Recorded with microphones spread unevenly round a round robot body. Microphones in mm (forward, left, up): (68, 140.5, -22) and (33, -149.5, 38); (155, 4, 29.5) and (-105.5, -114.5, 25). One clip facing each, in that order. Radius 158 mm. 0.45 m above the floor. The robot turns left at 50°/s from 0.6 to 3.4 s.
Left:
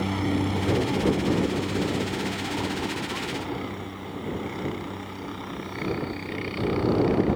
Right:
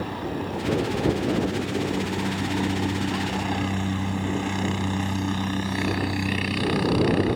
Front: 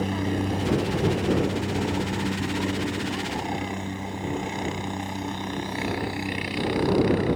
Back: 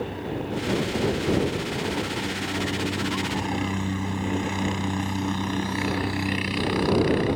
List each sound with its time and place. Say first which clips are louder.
0.0 s a helicopter: left 4 dB, front 4 dB; 50° left; by 7.4 s 90° right